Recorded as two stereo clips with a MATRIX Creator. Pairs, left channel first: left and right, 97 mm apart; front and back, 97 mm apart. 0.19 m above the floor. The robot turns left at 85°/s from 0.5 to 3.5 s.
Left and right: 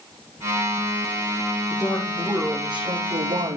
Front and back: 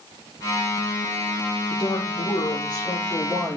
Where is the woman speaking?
40° left, 9.5 m; by 3.6 s 115° right, 9.5 m.